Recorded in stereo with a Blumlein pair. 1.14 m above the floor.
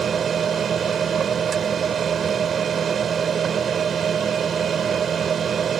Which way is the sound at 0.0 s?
20° right.